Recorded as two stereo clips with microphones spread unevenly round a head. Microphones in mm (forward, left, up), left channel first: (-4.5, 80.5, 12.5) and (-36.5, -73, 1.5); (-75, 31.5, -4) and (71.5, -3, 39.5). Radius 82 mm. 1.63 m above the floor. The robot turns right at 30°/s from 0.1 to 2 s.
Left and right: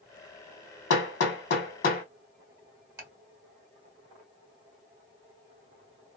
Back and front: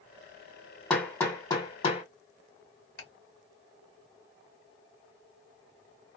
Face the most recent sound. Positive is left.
turn(degrees=-170)